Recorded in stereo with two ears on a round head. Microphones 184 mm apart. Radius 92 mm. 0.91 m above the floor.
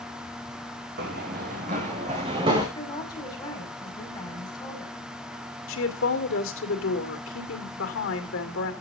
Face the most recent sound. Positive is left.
turn(degrees=75)  # may be behind; listen again after turning